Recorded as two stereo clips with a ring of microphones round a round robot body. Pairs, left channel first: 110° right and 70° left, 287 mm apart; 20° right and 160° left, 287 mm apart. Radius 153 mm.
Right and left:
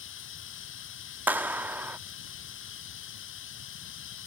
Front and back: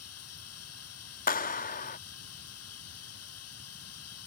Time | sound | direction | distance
0.0 | running water | 65° right | ?
1.3 | a clap | 10° right | ?